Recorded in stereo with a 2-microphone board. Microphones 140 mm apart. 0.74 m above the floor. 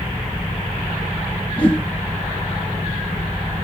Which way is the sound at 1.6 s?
35° left (ahead or behind).